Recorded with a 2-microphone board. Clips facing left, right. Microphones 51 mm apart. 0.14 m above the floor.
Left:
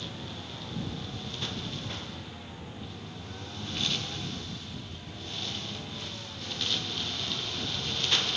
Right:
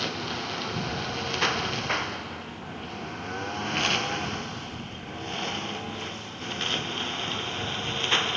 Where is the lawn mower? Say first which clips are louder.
Right 9 dB; 70° right (ahead or behind); by 8.4 s 30° right (ahead or behind).